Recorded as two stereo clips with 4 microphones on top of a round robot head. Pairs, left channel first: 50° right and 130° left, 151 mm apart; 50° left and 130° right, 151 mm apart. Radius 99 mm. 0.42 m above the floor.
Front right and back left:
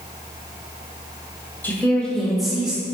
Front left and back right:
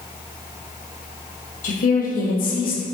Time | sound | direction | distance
1.6 | a woman speaking | 25° left | 1.9 m